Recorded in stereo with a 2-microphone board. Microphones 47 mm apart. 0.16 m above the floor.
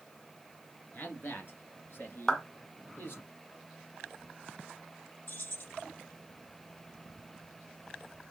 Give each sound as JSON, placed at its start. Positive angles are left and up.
{"t": 0.9, "sound": "a man speaking", "side_deg": 45, "distance_m": 2.5}
{"t": 2.3, "sound": "a clap", "side_deg": 15, "distance_m": 1.3}
{"t": 5.3, "sound": "keys jangling", "side_deg": 55, "distance_m": 4.0}